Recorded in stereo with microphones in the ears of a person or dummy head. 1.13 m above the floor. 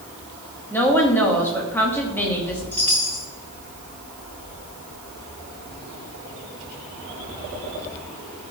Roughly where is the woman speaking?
Centre.